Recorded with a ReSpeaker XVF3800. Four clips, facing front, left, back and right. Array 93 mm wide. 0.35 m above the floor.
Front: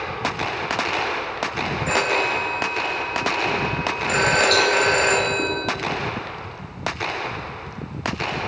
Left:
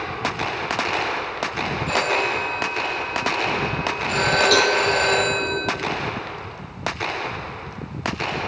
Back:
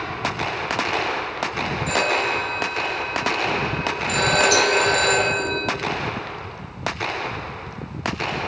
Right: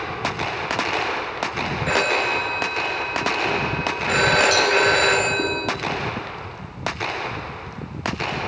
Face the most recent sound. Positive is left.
turn(degrees=110)